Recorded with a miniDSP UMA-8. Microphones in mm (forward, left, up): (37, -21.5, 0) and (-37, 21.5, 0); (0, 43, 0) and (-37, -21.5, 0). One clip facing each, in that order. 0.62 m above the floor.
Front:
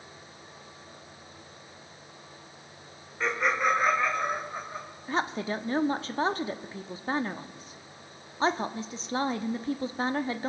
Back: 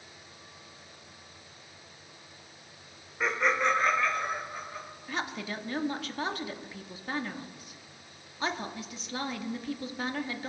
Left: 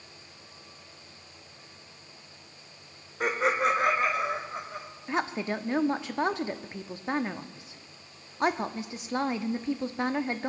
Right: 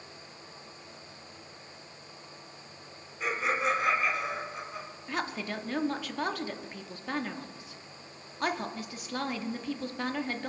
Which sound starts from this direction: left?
Laughter, at 3.2 s.